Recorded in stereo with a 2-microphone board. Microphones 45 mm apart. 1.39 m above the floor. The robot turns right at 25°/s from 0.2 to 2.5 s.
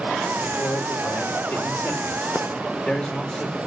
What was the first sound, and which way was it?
A man speaking, 105° left.